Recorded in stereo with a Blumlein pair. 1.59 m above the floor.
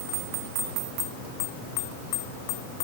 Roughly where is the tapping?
I don't hear tapping.